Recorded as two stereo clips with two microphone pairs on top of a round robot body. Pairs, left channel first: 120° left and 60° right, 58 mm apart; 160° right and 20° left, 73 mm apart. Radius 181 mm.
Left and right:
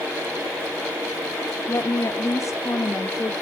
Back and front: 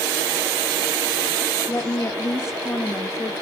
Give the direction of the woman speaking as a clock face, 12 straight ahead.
7 o'clock.